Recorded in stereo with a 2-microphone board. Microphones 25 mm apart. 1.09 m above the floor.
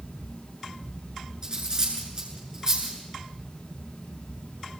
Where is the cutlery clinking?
30° right (ahead or behind), 8 m.